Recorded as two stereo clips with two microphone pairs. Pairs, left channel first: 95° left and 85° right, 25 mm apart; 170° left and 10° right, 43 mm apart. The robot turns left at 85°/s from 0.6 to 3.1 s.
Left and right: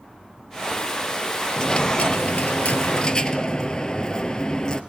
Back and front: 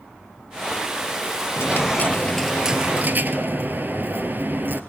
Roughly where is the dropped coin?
Behind.